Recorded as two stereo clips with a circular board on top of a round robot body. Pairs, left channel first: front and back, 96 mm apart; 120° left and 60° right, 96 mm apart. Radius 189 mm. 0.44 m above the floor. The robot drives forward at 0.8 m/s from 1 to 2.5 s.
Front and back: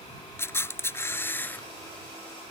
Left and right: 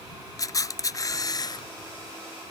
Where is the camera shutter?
65° left; by 1.7 s 70° left.